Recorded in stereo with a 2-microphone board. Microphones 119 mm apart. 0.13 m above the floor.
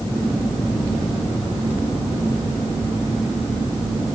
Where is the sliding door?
I don't hear a sliding door.